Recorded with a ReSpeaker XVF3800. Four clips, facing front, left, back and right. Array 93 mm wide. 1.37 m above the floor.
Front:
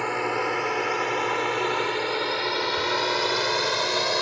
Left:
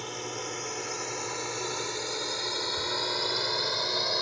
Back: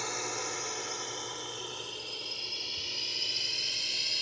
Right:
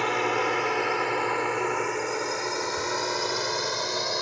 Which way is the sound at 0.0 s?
55° right.